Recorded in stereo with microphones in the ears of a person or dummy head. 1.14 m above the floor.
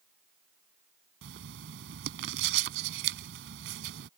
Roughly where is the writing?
Right.